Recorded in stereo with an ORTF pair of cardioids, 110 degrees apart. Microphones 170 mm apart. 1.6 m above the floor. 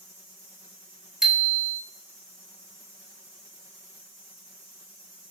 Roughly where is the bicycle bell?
Ahead.